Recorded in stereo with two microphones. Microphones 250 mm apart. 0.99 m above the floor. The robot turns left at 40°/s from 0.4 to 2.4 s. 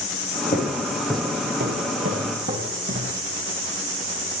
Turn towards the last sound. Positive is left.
turn(degrees=-60)  # may be behind; listen again after turning